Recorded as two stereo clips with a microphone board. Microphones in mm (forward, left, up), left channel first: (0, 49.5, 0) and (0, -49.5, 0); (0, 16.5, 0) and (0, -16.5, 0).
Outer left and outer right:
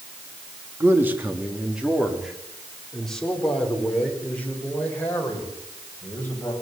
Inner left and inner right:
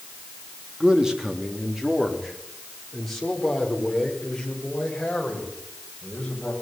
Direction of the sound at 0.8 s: 25° right (ahead or behind).